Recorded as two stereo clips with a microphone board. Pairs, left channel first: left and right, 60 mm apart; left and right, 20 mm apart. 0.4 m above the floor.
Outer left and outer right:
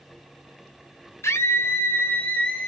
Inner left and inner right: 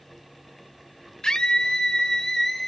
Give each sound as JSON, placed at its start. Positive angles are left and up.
{"t": 1.2, "sound": "a scream", "side_deg": 50, "distance_m": 1.6}